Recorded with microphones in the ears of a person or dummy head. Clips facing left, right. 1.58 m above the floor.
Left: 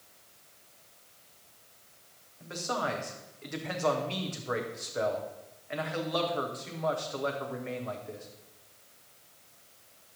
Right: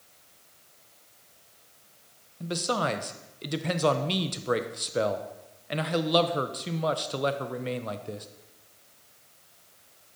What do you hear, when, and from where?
2.4 s a man speaking: 50° right (ahead or behind), 0.7 m